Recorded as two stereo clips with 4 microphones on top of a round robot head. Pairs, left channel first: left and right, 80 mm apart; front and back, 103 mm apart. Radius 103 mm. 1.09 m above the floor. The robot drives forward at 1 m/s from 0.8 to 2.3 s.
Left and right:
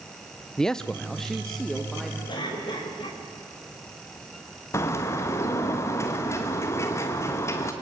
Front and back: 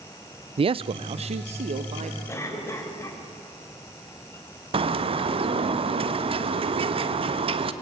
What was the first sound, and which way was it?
A man speaking, 170° left.